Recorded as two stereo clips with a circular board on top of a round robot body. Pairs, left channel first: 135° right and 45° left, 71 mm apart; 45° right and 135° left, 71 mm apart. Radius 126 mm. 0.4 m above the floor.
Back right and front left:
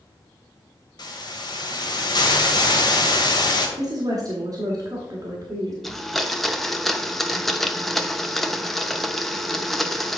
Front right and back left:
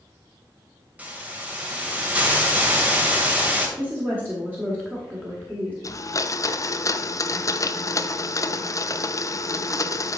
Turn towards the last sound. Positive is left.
turn(degrees=-50)